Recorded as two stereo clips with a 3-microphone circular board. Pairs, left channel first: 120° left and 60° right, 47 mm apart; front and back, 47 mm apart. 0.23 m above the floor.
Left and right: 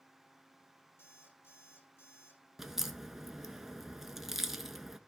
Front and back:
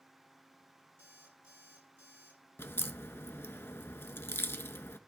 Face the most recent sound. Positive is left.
turn(degrees=20)